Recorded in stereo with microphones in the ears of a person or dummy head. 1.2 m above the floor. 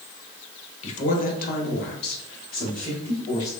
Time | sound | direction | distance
0.8 | a man speaking | 35° left (ahead or behind) | 1.0 m